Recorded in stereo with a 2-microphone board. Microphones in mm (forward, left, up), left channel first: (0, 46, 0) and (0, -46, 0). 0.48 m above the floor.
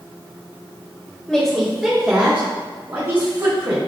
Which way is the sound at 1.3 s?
5° left (ahead or behind).